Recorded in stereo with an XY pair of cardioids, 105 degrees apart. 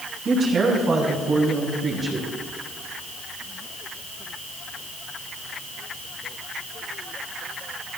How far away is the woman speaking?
About 6 m.